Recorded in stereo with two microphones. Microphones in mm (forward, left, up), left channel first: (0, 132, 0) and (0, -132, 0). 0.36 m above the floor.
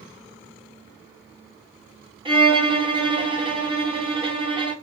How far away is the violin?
About 1.1 m.